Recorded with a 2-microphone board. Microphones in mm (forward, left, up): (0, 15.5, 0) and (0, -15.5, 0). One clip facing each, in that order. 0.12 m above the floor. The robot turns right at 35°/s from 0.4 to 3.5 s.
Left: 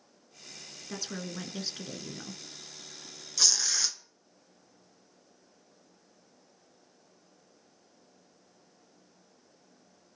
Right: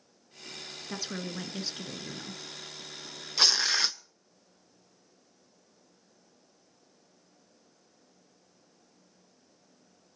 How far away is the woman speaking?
About 1.1 m.